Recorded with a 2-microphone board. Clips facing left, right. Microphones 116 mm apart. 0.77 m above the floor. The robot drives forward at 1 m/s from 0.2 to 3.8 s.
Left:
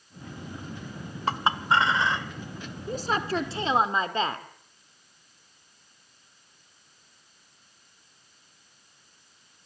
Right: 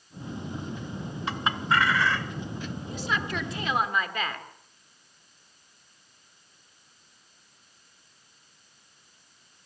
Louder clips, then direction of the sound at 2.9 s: Left 5 dB; 45° left (ahead or behind).